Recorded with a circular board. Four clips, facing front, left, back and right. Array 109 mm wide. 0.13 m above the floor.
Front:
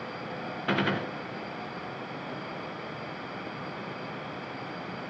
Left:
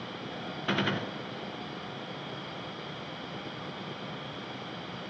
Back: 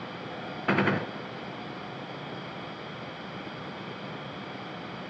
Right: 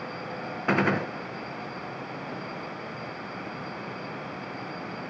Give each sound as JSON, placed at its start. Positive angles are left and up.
{"t": 0.7, "sound": "a gunshot", "azimuth_deg": -120, "distance_m": 0.8}